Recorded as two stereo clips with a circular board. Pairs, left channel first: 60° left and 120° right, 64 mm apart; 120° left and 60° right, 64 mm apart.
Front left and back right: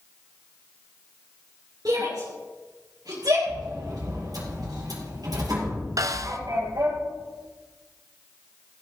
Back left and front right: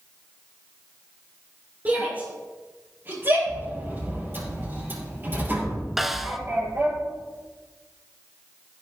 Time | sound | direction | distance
1.9 | a shout | 120° right | 4 m
3.5 | a sliding door | 115° right | 5 m
6.0 | a snare drum | 145° right | 0.8 m